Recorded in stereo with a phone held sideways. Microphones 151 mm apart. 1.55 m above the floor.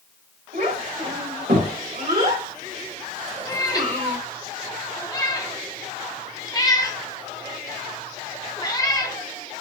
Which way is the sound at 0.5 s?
80° right.